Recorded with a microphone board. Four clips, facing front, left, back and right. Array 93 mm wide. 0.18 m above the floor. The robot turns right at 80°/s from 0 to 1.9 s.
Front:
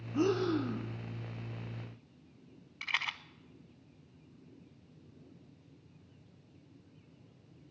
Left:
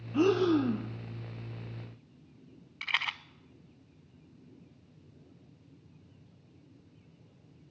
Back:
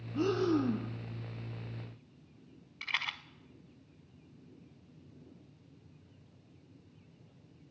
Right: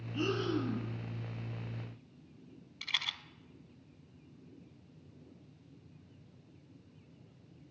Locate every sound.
0.1 s breathing: 75° left, 0.9 m; by 0.9 s 135° left, 0.9 m
2.8 s a rattle: 85° left, 0.6 m